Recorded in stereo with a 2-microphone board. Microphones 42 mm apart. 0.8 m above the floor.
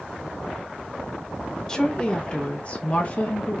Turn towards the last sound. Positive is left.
turn(degrees=35)  # may be behind; listen again after turning